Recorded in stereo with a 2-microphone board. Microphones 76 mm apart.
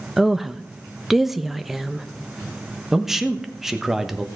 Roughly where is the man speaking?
Centre.